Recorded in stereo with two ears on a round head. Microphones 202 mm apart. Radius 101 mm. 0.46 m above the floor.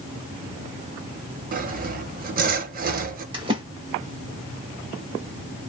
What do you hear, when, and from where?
1.5 s sawing: 40° right (ahead or behind), 0.6 m
3.3 s a splash: 20° right (ahead or behind), 1.1 m